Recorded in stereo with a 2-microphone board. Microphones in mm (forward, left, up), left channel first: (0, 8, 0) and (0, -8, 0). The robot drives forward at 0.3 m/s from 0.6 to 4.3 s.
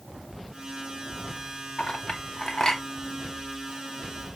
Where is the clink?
55° left (ahead or behind), 0.8 m; by 2.8 s 45° left (ahead or behind), 0.9 m.